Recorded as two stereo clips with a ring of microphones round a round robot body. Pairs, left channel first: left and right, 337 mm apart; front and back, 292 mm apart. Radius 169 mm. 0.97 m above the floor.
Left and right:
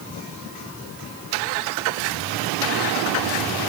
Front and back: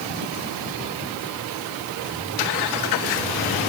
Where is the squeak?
I don't hear a squeak.